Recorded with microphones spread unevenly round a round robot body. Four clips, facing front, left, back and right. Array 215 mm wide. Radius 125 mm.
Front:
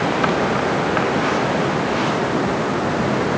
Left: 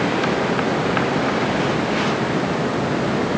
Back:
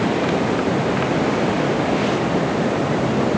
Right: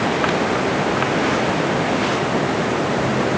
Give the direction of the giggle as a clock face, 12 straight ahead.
No giggle in this recording.